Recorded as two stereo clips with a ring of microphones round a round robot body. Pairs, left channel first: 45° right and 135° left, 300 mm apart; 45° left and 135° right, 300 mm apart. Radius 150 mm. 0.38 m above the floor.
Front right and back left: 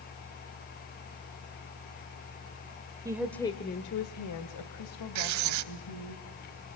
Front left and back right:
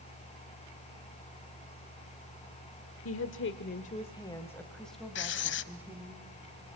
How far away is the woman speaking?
About 1.2 m.